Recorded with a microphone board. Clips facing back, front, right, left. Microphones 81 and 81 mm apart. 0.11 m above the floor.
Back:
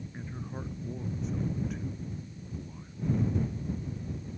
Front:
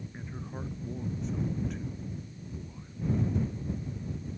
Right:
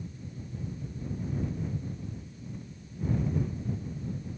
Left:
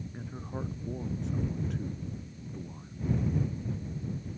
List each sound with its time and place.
0.1 s a man speaking: 90° left; by 2.9 s 100° left